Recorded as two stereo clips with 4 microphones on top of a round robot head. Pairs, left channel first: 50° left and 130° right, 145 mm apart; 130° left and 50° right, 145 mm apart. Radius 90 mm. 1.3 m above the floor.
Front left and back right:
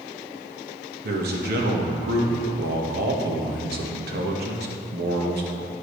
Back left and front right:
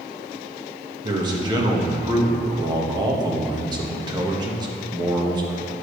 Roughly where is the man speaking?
Behind right.